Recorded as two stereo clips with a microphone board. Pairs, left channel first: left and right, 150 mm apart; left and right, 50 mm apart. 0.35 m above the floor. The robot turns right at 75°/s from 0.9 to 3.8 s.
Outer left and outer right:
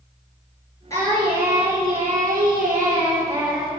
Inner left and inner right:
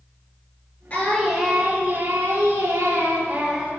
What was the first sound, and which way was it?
Singing, 155° left.